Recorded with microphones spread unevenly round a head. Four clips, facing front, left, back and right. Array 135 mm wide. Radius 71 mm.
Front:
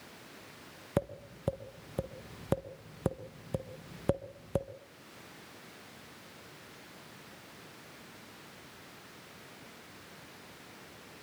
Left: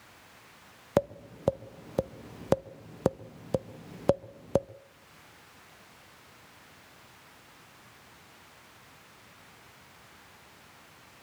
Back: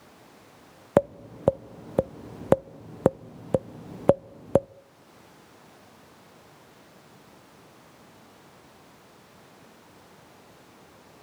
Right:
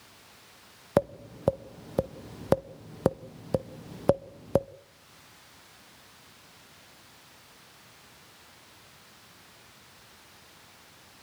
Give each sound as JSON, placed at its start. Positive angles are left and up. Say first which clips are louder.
{"t": 1.0, "sound": "tapping", "louder": "right 2 dB, back 12 dB", "azimuth_deg": -175, "distance_m": 0.5}